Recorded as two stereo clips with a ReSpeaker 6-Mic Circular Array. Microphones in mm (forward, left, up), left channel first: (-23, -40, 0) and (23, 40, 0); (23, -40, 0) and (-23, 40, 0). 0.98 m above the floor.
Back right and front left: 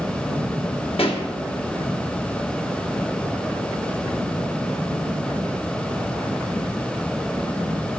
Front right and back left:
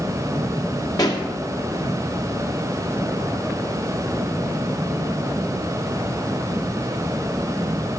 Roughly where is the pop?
Right.